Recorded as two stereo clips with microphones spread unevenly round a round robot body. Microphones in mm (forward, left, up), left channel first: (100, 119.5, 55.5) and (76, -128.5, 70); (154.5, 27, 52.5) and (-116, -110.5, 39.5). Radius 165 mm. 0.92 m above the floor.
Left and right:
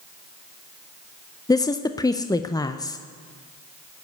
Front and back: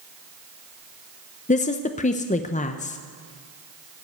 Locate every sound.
1.5 s a woman speaking: 45° left, 0.6 m